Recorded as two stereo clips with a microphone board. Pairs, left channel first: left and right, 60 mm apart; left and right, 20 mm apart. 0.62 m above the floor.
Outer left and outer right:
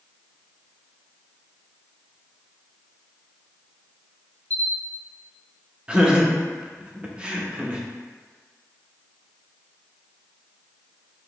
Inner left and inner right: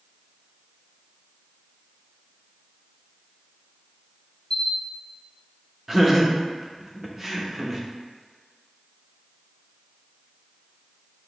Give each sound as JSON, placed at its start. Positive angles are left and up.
{"t": 4.5, "sound": "a camera shutter", "side_deg": 30, "distance_m": 1.0}
{"t": 5.9, "sound": "laughter", "side_deg": -15, "distance_m": 0.8}